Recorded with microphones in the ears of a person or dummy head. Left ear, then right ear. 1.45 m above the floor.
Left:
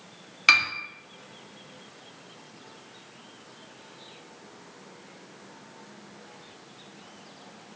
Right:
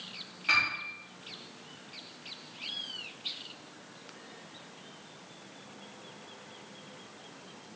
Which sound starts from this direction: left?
A piano, at 0.5 s.